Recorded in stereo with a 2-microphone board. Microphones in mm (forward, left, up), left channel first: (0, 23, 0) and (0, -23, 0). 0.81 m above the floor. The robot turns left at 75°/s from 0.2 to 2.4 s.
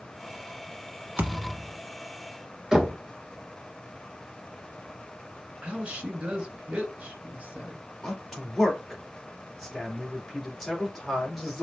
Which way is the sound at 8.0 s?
5° left (ahead or behind).